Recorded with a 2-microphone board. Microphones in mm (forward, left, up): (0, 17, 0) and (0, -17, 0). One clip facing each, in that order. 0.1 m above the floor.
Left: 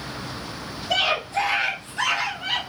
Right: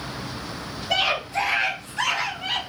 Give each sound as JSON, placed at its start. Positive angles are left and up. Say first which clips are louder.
{"t": 0.9, "sound": "a scream", "louder": "left 1 dB", "side_deg": -15, "distance_m": 1.4}